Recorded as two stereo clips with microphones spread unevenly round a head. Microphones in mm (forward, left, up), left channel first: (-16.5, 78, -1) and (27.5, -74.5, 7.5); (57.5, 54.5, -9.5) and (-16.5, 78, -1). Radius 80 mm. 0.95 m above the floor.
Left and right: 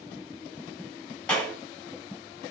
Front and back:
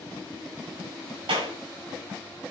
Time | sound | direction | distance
1.3 | a clap | 170° right | 5.5 m